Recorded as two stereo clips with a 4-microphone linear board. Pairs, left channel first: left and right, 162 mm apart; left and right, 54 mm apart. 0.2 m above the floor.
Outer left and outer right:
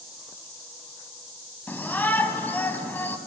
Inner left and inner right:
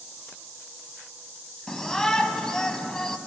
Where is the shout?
10° left (ahead or behind), 1.5 m.